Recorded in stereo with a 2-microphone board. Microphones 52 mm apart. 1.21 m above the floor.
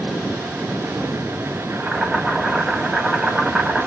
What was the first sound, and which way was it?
Boiling, 5° right (ahead or behind).